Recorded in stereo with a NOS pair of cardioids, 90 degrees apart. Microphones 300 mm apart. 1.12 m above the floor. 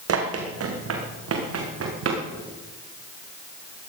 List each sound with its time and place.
0.1 s running footsteps: 55° right, 3.5 m